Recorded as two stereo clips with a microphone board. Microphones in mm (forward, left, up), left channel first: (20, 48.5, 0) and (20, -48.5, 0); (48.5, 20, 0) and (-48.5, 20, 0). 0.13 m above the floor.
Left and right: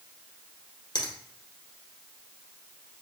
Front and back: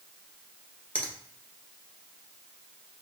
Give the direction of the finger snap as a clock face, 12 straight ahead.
10 o'clock.